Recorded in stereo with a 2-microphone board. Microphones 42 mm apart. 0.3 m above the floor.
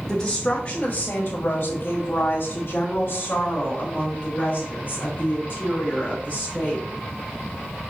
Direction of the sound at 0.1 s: 10° left (ahead or behind).